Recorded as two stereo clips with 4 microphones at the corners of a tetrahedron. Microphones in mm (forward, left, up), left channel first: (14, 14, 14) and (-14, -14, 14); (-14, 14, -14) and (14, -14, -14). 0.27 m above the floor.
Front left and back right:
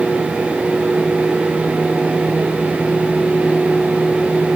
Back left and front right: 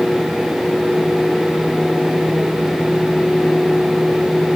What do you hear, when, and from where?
Only background noise.